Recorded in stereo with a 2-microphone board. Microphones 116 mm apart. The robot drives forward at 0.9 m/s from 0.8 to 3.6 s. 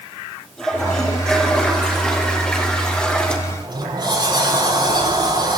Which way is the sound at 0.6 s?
5° left (ahead or behind).